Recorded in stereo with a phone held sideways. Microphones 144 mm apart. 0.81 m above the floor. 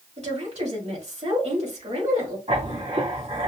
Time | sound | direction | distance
0.2 | a woman speaking | 50° right (ahead or behind) | 2.5 m
2.5 | writing | 50° right (ahead or behind) | 2 m